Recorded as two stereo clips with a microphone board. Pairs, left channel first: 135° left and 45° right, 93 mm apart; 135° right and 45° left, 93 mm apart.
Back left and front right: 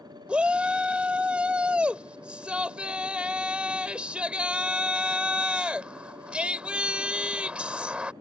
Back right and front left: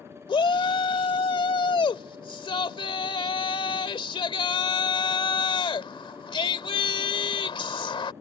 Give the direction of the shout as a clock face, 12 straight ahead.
4 o'clock.